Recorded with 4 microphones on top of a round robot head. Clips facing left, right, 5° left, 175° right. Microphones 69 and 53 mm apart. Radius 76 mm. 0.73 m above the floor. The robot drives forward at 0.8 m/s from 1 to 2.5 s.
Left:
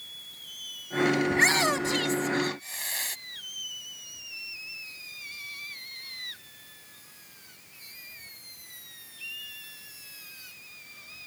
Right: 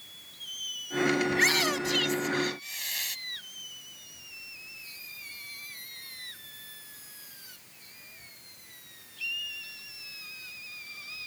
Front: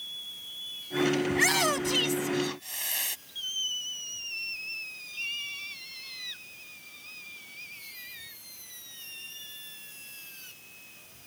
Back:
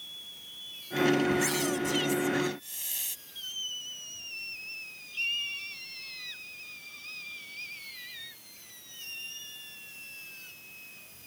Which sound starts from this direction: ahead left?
A shout, at 1.3 s.